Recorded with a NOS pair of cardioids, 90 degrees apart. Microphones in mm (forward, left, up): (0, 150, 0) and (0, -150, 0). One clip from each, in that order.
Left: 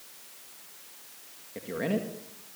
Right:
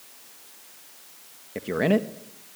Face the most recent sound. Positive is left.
turn(degrees=-45)